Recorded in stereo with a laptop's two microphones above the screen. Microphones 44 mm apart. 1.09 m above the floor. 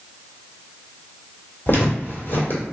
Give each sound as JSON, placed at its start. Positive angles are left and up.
{"t": 1.7, "sound": "footsteps", "side_deg": 50, "distance_m": 1.7}